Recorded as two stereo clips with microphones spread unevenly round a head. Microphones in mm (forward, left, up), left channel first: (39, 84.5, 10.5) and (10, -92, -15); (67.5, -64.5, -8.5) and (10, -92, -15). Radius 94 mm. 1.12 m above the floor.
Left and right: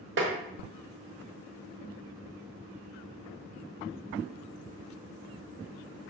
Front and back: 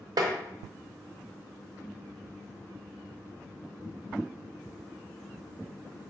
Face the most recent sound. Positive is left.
turn(degrees=-135)